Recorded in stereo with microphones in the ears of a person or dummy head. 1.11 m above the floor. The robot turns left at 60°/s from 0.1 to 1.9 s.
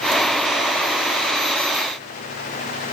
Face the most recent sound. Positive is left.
No sound to turn to.